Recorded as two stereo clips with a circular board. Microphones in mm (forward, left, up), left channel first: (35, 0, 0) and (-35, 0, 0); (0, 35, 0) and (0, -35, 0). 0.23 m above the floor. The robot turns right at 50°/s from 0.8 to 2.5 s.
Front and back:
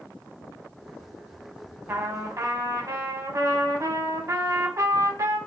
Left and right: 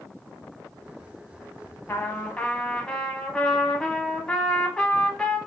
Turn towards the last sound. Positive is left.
turn(degrees=165)